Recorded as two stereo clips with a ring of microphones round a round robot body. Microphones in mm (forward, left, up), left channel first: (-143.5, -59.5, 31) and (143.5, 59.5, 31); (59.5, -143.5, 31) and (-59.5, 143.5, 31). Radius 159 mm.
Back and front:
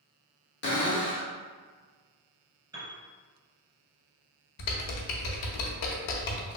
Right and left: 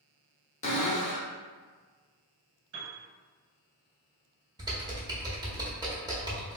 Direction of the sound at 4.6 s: 170° right.